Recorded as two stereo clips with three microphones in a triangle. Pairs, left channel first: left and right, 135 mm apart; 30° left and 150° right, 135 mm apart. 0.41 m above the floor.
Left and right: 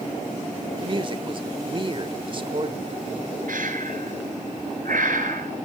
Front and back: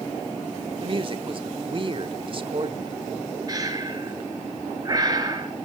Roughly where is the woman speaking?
Behind right.